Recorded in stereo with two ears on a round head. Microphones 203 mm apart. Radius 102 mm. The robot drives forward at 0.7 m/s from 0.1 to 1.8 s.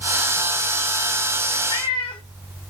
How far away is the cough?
I don't hear a cough.